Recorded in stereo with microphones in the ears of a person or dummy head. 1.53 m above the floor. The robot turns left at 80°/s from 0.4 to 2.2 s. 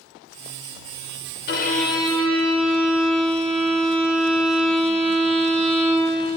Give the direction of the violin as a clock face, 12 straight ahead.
10 o'clock.